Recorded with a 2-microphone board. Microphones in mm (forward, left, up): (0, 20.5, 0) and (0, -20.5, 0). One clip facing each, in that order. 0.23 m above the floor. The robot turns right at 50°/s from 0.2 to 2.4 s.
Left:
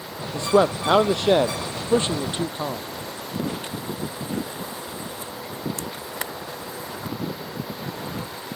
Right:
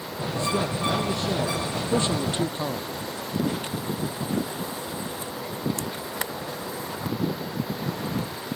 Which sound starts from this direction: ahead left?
A man speaking, at 0.3 s.